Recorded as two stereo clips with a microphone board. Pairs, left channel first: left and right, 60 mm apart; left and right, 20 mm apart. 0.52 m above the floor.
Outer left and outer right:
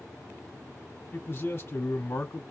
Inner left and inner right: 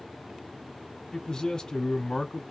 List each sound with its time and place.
1.1 s a man speaking: 35° left (ahead or behind), 1.2 m